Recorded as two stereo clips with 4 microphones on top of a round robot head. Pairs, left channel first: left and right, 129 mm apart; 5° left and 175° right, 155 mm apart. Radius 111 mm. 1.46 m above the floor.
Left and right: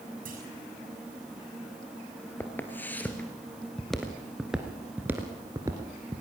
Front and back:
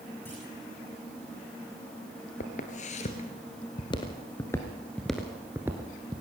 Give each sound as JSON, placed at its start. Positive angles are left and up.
{"t": 0.2, "sound": "a clunk", "azimuth_deg": -75, "distance_m": 6.5}
{"t": 2.4, "sound": "footsteps", "azimuth_deg": 20, "distance_m": 1.9}